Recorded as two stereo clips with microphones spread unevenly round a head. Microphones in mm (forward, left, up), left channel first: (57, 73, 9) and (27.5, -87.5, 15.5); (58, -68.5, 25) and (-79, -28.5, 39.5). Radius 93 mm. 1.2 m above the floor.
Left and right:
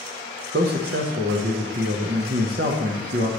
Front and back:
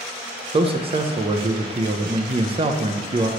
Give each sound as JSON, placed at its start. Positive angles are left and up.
{"t": 0.5, "sound": "a man speaking", "azimuth_deg": -145, "distance_m": 0.8}